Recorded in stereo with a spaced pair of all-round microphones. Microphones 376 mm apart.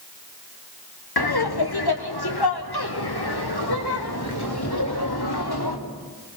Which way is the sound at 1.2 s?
75° left (ahead or behind).